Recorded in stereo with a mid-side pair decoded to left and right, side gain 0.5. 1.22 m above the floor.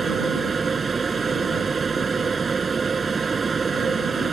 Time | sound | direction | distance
0.0 | a machine running | 30° right | ?